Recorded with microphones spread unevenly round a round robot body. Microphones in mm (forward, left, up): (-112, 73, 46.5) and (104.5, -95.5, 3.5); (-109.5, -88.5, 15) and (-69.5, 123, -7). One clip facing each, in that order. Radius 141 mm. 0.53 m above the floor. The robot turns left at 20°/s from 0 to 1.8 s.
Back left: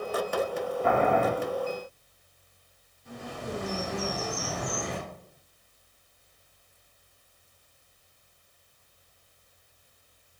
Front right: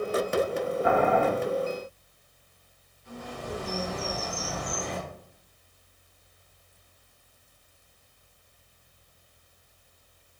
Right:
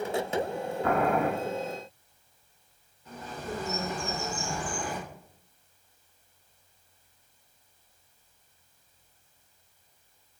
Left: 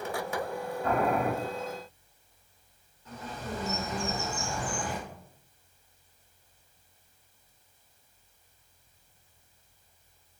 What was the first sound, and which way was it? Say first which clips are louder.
Boiling: front right 1 dB, right 2 dB; 115° right.